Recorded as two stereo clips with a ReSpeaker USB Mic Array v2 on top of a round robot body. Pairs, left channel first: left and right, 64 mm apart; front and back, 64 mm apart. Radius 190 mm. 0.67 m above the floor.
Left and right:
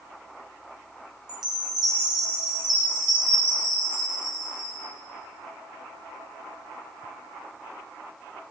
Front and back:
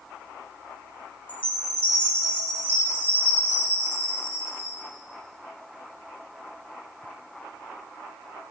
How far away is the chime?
About 2 m.